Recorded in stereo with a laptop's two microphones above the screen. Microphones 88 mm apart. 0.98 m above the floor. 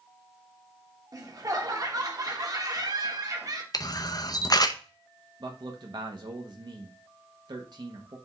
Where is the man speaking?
60° right (ahead or behind), 1.3 m.